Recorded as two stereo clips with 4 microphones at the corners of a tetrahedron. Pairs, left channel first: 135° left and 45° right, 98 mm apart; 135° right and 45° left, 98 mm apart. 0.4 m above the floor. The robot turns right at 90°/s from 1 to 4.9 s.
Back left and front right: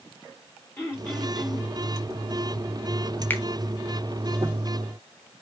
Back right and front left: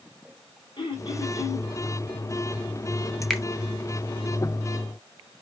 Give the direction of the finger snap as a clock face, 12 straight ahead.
7 o'clock.